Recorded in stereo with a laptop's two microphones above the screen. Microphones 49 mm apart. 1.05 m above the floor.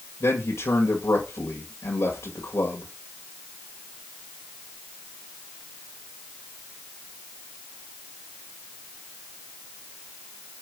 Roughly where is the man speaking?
Left.